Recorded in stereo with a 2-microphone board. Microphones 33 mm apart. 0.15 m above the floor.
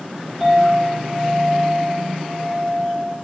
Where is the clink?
5° right (ahead or behind), 2.5 m.